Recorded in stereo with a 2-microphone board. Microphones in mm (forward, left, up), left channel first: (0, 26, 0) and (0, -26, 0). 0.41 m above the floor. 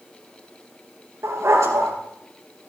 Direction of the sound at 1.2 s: 85° right.